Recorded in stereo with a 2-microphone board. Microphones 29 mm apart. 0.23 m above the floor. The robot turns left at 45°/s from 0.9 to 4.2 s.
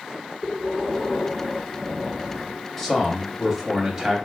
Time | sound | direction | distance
0.4 | breathing | 55° right | 1.4 m
2.8 | a man speaking | 10° left (ahead or behind) | 1.0 m